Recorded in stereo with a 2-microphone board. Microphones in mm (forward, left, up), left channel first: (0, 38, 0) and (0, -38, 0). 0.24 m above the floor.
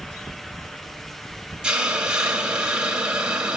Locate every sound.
1.6 s a hiss: 10° right (ahead or behind), 1.5 m